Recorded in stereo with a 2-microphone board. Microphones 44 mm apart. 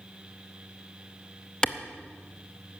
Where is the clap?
20° left (ahead or behind), 0.7 m.